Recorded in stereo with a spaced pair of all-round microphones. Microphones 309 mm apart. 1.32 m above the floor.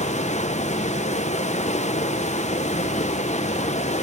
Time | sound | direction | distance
0.0 | running water | 25° left (ahead or behind) | 0.8 m